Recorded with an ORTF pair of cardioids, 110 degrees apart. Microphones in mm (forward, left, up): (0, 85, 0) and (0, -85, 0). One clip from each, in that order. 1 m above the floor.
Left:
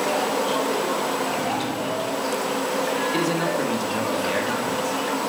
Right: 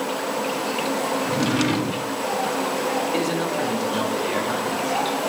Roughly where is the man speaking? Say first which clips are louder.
Left 1 dB; ahead.